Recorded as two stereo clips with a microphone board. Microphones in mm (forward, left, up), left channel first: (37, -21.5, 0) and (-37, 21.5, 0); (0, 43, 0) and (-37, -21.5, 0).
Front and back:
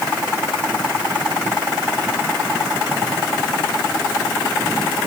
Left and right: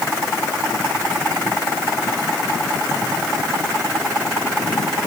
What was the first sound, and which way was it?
Only background noise.